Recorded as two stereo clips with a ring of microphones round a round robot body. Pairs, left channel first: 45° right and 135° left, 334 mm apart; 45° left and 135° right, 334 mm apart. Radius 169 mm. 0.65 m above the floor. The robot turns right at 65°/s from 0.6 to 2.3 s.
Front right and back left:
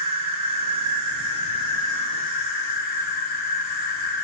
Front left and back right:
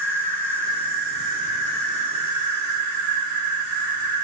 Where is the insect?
140° left, 2.5 m; by 4.2 s 110° right, 2.5 m.